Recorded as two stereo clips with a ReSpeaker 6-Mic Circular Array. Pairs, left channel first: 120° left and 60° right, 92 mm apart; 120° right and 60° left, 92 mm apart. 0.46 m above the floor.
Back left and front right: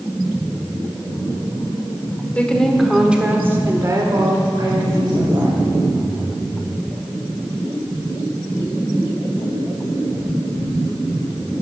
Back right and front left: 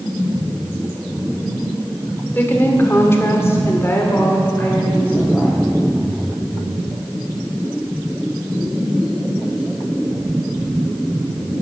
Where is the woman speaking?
175° right, 1.6 m; by 5.6 s 50° right, 2.5 m.